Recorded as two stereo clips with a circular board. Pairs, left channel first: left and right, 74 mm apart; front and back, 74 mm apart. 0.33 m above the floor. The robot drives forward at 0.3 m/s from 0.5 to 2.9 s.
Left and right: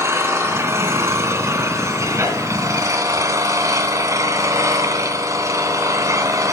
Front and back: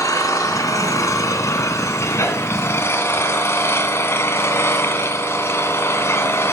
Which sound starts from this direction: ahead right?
An engine running, at 0.0 s.